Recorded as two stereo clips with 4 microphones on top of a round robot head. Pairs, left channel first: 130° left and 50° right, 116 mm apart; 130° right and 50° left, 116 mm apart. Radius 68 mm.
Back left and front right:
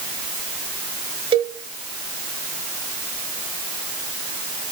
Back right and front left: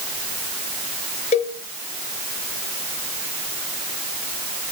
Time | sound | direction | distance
1.3 | a cowbell | 95° right | 1.0 m